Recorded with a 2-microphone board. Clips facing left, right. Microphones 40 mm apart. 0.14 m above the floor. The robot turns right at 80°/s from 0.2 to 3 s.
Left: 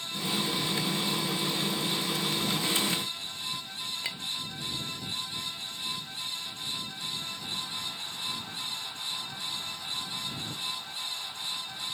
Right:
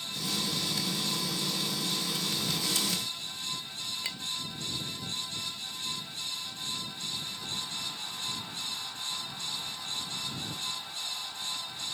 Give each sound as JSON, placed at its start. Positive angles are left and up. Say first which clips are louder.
{"t": 4.0, "sound": "a clink", "louder": "left 1 dB", "side_deg": 10}